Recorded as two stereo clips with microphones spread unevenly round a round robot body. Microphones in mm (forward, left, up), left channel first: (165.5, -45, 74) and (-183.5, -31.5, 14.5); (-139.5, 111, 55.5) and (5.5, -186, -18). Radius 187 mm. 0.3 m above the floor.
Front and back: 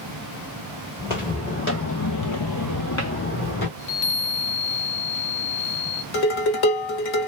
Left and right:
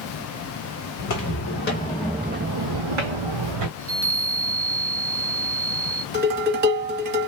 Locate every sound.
1.0 s footsteps: 75° left, 1.2 m; by 3.7 s 65° right, 1.1 m
3.8 s a chime: 35° right, 0.9 m
6.1 s dishes clattering: 15° right, 1.2 m